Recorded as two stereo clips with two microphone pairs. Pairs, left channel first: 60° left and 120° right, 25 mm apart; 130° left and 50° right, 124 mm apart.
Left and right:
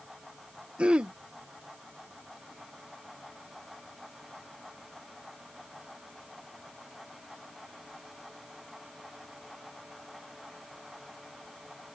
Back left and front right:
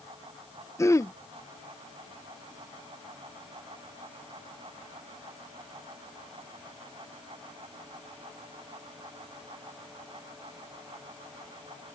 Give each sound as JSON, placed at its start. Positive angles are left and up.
{"t": 0.8, "sound": "throat clearing", "azimuth_deg": -165}